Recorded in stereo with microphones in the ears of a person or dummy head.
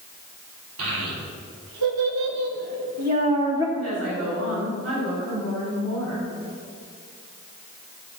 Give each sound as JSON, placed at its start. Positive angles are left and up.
{"t": 0.8, "sound": "a child speaking", "side_deg": -75, "distance_m": 3.5}
{"t": 3.8, "sound": "a woman speaking", "side_deg": -90, "distance_m": 5.0}